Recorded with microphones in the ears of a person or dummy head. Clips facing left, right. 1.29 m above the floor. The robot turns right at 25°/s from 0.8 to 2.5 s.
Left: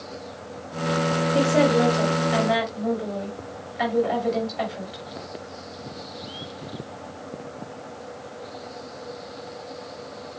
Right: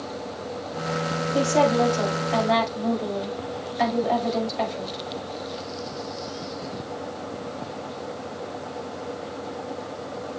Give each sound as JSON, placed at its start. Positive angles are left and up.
{"t": 1.3, "sound": "a woman speaking", "side_deg": 35, "distance_m": 5.0}